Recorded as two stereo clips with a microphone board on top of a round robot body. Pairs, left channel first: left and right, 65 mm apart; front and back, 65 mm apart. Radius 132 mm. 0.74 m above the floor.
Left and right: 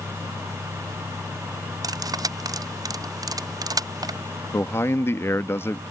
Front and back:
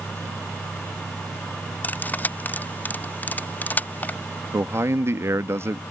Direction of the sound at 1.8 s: 65° right.